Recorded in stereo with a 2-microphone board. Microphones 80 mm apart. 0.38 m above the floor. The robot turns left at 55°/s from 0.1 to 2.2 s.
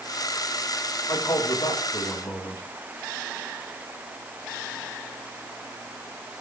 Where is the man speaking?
125° left, 3.5 m; by 2.6 s 65° left, 3.5 m.